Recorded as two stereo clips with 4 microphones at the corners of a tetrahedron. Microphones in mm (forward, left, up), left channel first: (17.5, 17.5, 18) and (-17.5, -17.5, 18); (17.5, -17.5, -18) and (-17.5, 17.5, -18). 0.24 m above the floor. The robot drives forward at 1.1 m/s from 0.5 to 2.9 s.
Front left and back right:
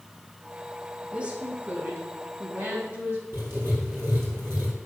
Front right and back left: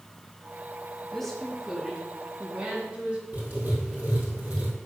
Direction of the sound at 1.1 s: 110° right.